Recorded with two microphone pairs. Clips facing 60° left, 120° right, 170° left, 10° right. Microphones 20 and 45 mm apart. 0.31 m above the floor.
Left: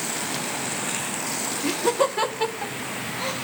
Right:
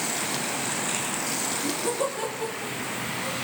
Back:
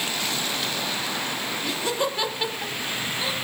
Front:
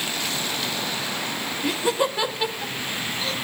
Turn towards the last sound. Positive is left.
turn(degrees=95)